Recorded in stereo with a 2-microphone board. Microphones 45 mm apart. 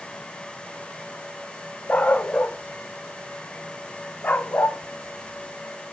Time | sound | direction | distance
1.9 | a dog barking | 35° left (ahead or behind) | 4.5 m